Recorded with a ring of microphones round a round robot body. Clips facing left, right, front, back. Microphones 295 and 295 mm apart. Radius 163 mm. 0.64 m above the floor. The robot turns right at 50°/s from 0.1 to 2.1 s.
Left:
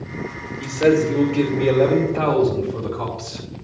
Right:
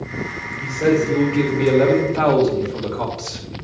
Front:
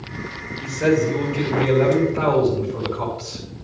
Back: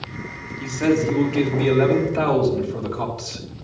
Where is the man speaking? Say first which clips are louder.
Left 1 dB, even; 150° left, 3 m; by 3.5 s 135° right, 3 m.